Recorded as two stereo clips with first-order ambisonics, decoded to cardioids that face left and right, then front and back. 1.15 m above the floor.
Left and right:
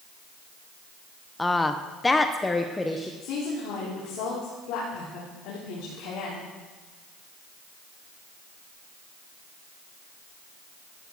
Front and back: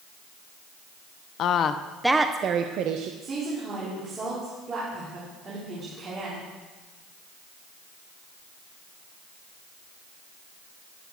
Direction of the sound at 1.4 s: 10° left.